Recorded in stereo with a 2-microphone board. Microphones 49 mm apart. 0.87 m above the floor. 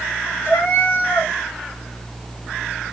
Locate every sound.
0.5 s a cat meowing: 50° left (ahead or behind), 2 m